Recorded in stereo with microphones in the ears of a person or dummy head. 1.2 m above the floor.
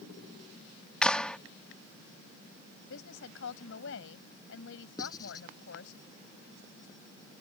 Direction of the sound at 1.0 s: 5° left (ahead or behind).